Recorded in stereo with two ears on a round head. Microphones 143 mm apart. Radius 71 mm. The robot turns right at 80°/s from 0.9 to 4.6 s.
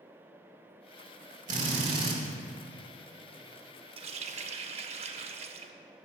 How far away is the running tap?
About 0.6 m.